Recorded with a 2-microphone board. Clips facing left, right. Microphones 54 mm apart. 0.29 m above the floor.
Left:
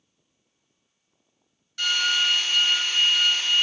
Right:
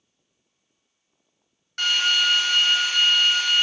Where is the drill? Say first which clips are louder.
Right 2 dB; 50° right (ahead or behind), 0.7 m.